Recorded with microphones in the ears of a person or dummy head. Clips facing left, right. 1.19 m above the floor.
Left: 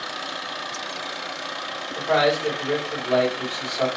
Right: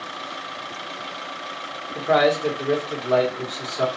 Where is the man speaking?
60° right (ahead or behind), 1.4 m.